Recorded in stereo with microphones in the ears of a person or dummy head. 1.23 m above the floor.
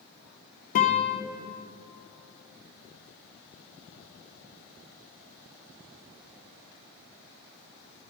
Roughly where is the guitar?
Left.